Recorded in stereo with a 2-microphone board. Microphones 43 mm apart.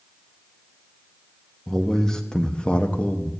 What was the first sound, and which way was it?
A man speaking, 5° left (ahead or behind).